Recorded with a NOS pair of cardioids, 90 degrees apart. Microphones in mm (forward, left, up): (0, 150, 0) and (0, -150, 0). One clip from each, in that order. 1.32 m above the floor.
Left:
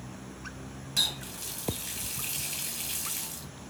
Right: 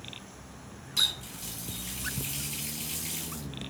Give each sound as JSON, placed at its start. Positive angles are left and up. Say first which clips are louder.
{"t": 1.0, "sound": "a running tap", "louder": "right 1 dB", "azimuth_deg": 25, "distance_m": 0.9}